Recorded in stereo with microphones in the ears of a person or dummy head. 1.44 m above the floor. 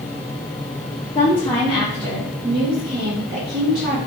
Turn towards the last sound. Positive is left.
turn(degrees=-55)  # may be behind; listen again after turning